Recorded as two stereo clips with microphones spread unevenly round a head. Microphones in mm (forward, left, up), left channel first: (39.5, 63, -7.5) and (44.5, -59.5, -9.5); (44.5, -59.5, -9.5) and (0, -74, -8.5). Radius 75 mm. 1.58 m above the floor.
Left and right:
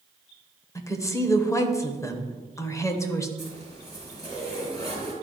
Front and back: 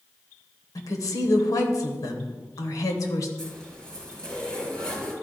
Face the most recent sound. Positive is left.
turn(degrees=160)